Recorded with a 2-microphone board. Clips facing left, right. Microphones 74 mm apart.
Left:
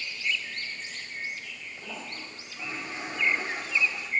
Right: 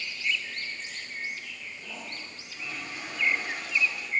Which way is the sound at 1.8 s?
30° left (ahead or behind).